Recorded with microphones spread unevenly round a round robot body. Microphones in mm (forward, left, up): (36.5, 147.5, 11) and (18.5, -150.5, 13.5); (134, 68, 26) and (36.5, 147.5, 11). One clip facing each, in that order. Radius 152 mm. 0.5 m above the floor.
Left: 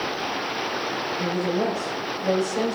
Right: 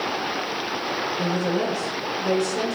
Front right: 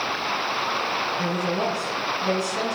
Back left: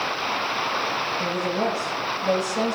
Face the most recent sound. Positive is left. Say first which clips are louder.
# even, back left 1 dB
turn(degrees=-30)